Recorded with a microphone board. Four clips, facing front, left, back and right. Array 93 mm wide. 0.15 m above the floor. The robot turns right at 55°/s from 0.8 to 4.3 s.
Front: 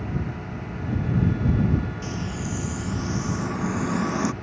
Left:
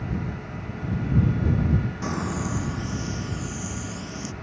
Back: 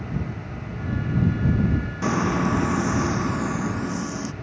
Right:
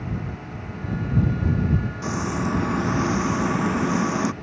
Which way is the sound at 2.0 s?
Straight behind.